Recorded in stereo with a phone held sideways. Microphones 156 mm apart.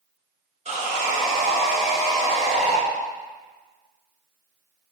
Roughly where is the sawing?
Right.